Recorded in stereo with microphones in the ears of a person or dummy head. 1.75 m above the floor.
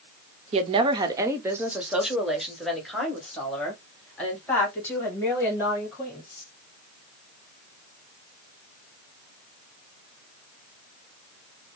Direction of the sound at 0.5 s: 35° right (ahead or behind).